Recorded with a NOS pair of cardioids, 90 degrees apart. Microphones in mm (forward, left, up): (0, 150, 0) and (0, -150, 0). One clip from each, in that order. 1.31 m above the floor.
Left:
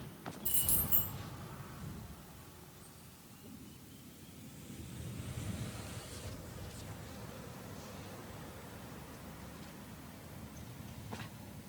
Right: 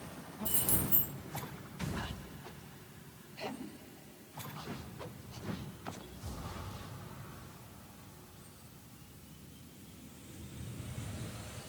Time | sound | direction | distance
0.5 | keys jangling | 10° right | 1.2 m